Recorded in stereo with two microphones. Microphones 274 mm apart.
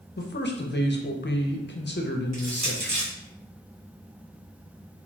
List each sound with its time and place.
0.2 s a man speaking: 40° left (ahead or behind), 0.5 m
2.3 s crushing: 70° right (ahead or behind), 1.3 m